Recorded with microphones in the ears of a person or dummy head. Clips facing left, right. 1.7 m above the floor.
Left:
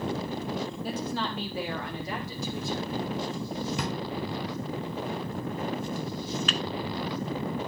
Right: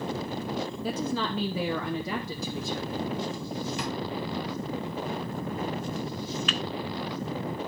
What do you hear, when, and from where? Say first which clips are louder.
0.8 s a woman speaking: right 2 dB; 70° right (ahead or behind), 0.9 m; by 3.1 s 75° right (ahead or behind), 2 m
3.8 s a drawer: left 1 dB; 45° left (ahead or behind), 4 m
6.5 s a microwave: even; 20° left (ahead or behind), 0.5 m